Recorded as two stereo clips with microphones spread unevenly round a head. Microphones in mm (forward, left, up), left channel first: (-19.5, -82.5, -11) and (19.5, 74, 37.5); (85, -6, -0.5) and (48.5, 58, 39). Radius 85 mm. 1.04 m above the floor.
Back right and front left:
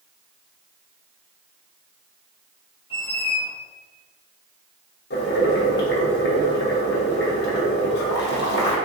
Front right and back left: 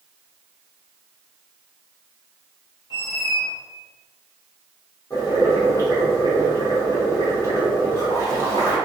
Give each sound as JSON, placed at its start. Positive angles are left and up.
{"t": 2.9, "sound": "a squeak", "azimuth_deg": -40, "distance_m": 0.9}
{"t": 5.1, "sound": "boiling", "azimuth_deg": -130, "distance_m": 1.0}